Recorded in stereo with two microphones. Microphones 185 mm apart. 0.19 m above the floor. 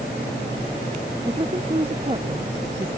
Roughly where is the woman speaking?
Right.